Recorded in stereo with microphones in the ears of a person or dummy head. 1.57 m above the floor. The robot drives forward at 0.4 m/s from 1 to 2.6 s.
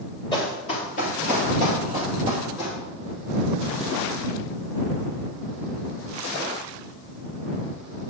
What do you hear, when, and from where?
0.3 s running footsteps: 25° left (ahead or behind), 2 m; by 2.8 s 50° left (ahead or behind), 3.5 m